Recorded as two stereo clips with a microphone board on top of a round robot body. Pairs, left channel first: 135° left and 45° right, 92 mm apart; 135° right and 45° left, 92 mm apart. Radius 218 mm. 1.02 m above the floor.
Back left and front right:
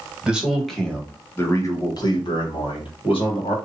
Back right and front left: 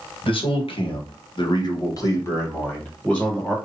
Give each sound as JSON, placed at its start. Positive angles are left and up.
{"t": 0.2, "sound": "a man speaking", "azimuth_deg": -125, "distance_m": 1.5}